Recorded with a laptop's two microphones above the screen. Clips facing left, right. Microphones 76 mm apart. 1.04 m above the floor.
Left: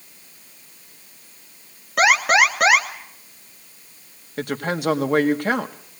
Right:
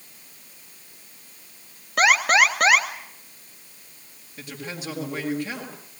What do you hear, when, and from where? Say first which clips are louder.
2.0 s an alarm: left 2 dB; 5° left (ahead or behind), 2 m
4.4 s a woman speaking: left 11 dB; 60° left (ahead or behind), 1.9 m